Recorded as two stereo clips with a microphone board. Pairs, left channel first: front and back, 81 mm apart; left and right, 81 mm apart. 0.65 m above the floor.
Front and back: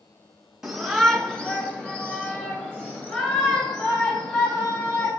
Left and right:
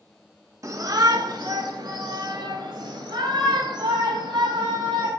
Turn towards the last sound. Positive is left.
turn(degrees=-70)